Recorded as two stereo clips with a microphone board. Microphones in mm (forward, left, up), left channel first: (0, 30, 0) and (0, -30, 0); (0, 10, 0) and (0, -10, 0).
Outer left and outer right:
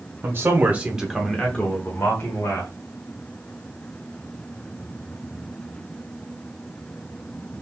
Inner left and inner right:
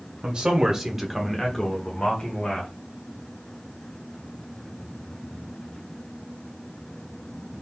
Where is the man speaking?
40° right (ahead or behind), 1.3 m; by 2.7 s 55° left (ahead or behind), 1.6 m.